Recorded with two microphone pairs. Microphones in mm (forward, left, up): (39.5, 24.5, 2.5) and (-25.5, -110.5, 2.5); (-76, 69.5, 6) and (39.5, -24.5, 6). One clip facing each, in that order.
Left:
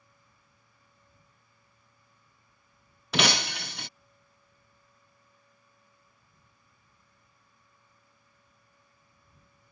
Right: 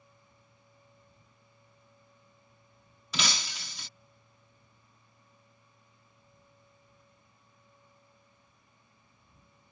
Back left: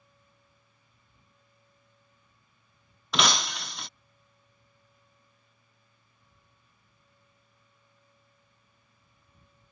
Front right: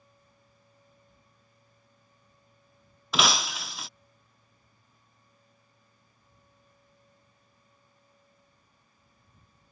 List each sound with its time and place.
3.1 s breaking glass: 50° left